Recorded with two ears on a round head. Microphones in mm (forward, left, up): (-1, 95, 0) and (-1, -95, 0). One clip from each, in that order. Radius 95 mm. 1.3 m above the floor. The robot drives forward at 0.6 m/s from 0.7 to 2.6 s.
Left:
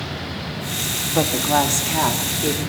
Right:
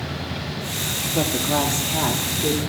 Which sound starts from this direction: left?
A woman speaking, at 1.1 s.